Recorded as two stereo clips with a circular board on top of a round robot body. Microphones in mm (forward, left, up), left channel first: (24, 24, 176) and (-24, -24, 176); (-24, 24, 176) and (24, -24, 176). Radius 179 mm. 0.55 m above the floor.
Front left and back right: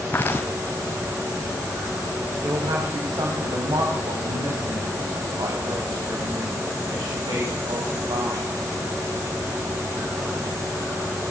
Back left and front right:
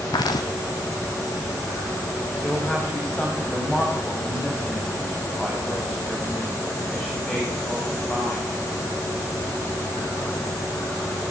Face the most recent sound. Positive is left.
turn(degrees=-145)